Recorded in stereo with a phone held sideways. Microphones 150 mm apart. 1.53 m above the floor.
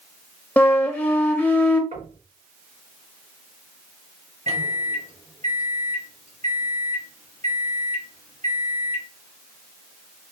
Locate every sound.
0.6 s a flute: 10° left (ahead or behind), 0.5 m
1.9 s knocking: 60° right (ahead or behind), 2 m
4.5 s a microwave: 45° right (ahead or behind), 1.1 m